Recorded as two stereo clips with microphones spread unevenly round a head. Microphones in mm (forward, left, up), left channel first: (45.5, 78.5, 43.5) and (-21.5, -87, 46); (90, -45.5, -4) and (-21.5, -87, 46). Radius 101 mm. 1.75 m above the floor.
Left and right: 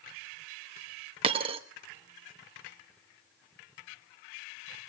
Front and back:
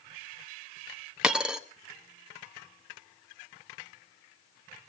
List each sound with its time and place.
1.2 s a dropped coin: 140° right, 1.1 m